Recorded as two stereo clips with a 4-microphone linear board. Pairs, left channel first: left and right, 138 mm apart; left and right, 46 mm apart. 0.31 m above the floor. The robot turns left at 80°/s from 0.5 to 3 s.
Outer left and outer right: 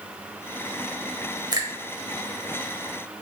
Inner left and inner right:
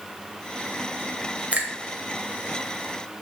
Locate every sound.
1.5 s a finger snap: 30° right (ahead or behind), 0.9 m; by 1.7 s 25° right (ahead or behind), 0.9 m